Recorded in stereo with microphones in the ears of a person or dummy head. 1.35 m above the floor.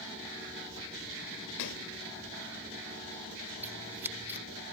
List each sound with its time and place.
1.6 s a splash: 75° left (ahead or behind)
3.6 s scissors: 10° right (ahead or behind)